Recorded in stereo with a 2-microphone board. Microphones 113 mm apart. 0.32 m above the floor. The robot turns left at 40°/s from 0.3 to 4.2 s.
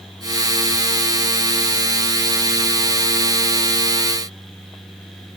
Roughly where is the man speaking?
No man speaking in this recording.